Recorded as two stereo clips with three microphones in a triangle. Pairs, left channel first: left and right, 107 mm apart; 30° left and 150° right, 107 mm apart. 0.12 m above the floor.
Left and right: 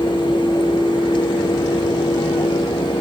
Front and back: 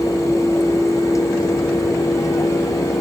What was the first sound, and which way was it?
Only background noise.